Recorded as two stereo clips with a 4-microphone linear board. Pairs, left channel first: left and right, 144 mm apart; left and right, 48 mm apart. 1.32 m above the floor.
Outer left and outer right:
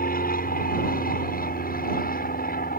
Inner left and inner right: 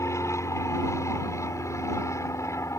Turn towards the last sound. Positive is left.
turn(degrees=75)  # may be behind; listen again after turning